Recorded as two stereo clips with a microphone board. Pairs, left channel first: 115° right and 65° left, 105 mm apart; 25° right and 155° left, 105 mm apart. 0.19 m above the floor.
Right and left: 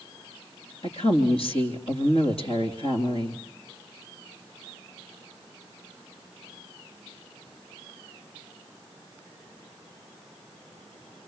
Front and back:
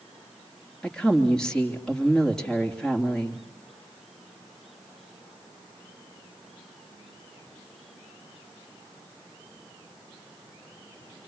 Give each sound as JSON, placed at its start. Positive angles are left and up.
{"t": 0.8, "sound": "a woman speaking", "azimuth_deg": -105, "distance_m": 3.5}